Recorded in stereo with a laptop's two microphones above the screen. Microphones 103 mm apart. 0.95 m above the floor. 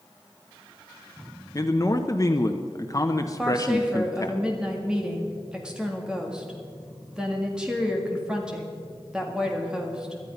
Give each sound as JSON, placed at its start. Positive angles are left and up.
{"t": 1.6, "sound": "a man speaking", "side_deg": 35, "distance_m": 0.8}
{"t": 3.4, "sound": "a woman speaking", "side_deg": -10, "distance_m": 1.9}